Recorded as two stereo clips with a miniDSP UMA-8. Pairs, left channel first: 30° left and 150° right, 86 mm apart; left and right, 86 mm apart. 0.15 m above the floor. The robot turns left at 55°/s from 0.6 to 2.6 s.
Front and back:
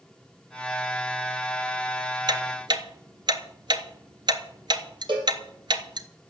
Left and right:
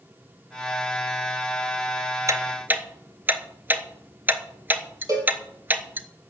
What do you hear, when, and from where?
2.3 s ticking: 135° right, 0.9 m; by 6.1 s 155° right, 0.9 m
5.1 s a cowbell: 135° right, 3 m